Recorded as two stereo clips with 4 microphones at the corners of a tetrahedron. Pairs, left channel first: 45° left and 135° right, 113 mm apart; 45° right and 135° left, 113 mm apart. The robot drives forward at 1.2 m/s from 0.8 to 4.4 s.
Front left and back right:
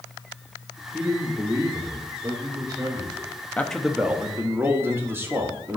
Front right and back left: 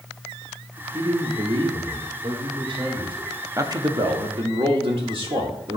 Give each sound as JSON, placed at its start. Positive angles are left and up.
{"t": 0.9, "sound": "a man speaking", "azimuth_deg": 140, "distance_m": 0.9}
{"t": 3.6, "sound": "a man speaking", "azimuth_deg": 110, "distance_m": 0.8}